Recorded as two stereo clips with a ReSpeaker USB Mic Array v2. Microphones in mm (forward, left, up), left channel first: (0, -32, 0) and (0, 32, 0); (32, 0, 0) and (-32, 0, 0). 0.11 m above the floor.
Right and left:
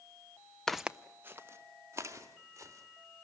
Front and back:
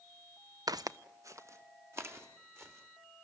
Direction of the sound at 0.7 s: 170° right.